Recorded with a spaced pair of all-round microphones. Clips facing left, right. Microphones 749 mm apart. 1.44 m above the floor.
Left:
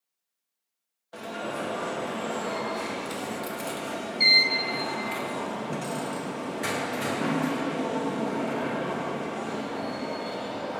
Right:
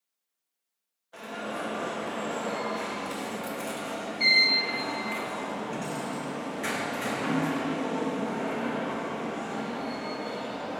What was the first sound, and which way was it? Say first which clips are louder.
An alarm: left 2 dB; 65° left (ahead or behind).